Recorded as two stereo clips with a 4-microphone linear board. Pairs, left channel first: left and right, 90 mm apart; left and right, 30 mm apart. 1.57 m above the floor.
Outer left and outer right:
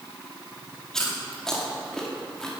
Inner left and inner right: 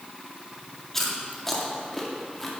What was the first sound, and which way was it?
Chewing, 5° left (ahead or behind).